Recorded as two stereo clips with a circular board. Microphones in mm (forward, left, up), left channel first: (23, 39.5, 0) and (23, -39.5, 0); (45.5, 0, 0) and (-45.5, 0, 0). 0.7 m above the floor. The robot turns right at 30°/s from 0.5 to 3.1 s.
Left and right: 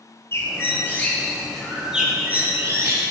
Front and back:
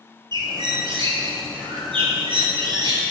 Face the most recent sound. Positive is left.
turn(degrees=-135)